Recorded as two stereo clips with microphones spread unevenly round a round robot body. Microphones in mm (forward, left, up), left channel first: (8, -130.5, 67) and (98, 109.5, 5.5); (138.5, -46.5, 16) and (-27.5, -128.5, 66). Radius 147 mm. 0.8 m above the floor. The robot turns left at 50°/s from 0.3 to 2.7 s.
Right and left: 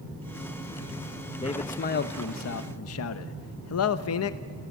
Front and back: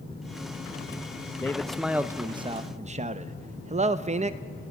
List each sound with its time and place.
1.4 s a man speaking: 30° right, 0.7 m; by 4.4 s 95° right, 0.7 m